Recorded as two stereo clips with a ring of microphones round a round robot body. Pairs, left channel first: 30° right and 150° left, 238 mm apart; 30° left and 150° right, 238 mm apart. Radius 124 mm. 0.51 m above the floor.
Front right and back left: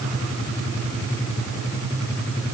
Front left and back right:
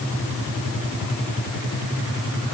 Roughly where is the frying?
No frying in this recording.